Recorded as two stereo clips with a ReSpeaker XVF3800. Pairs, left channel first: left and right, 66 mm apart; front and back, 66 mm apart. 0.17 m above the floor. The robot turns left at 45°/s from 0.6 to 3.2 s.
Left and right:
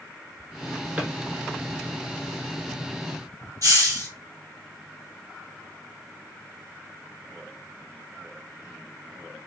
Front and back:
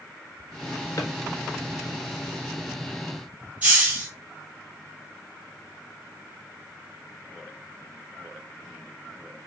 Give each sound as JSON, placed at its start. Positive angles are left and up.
{"t": 1.0, "sound": "a drawer", "azimuth_deg": -25, "distance_m": 0.8}
{"t": 3.6, "sound": "a hiss", "azimuth_deg": -115, "distance_m": 1.5}